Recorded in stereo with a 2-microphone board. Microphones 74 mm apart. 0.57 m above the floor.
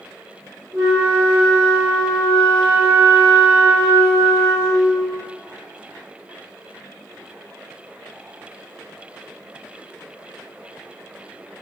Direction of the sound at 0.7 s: 25° right (ahead or behind).